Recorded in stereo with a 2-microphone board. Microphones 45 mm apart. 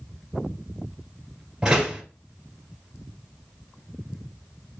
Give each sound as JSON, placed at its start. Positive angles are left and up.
{"t": 1.6, "sound": "a door slam", "side_deg": -15, "distance_m": 1.6}